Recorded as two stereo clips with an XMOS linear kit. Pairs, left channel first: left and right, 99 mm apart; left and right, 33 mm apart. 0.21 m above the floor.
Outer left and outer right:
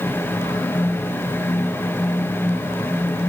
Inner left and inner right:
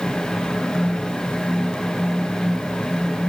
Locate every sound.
Only background noise.